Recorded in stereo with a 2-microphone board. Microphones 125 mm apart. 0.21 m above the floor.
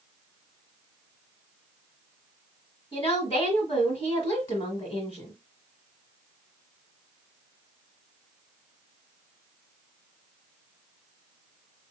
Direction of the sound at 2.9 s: 40° left (ahead or behind).